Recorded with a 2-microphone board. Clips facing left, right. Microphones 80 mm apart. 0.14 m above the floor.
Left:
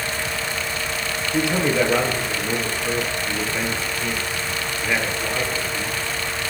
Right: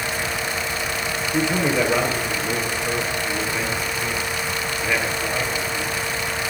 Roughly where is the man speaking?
Centre.